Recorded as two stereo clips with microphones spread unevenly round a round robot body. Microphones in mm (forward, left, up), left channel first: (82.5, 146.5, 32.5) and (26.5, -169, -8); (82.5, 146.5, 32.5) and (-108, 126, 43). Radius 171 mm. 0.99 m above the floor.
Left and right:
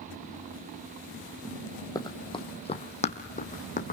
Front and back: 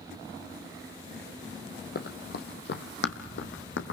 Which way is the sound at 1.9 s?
15° left.